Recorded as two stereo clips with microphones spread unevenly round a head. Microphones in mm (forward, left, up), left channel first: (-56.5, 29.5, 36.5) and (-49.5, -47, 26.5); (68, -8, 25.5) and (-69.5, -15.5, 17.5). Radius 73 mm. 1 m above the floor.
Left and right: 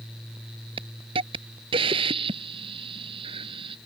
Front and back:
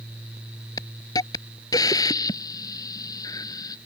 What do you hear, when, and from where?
0.8 s a hiss: 60° right